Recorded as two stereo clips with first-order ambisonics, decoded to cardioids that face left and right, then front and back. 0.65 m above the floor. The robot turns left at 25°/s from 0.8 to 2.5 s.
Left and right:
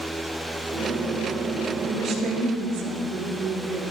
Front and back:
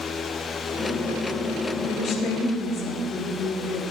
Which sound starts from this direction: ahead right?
A woman speaking, at 1.8 s.